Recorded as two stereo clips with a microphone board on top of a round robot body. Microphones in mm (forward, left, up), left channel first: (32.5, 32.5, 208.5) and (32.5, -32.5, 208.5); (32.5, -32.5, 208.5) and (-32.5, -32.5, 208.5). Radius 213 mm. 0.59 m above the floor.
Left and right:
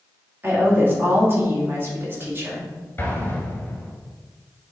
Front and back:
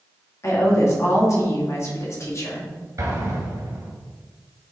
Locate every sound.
0.4 s a woman speaking: 35° right, 2.5 m
3.0 s an explosion: 150° left, 2 m